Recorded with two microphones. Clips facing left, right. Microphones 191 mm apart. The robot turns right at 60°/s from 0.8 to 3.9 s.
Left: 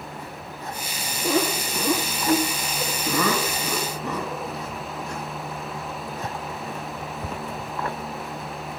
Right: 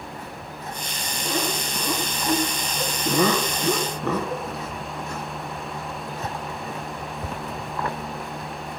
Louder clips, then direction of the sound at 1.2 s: Left 5 dB; 55° left (ahead or behind).